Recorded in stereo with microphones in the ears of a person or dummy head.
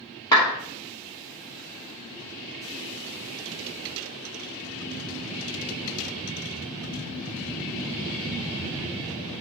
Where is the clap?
20° left (ahead or behind), 1.3 m.